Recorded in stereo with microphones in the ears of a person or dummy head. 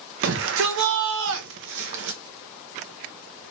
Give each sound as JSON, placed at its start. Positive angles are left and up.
{"t": 0.2, "sound": "a shout", "side_deg": -50, "distance_m": 0.7}